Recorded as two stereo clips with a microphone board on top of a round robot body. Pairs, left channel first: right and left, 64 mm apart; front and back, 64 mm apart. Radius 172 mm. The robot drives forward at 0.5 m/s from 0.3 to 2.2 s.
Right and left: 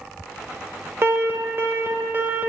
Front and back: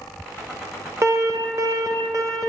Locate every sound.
1.0 s an alarm: 140° left, 1.8 m; by 2.5 s 150° left, 2 m